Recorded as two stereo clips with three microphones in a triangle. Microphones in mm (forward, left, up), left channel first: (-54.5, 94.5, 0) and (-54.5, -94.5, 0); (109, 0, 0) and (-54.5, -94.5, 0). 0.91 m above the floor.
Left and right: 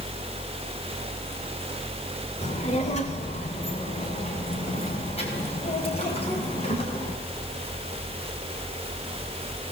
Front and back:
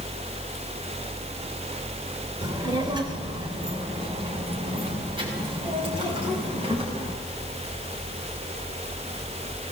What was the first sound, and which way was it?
A child speaking, 145° left.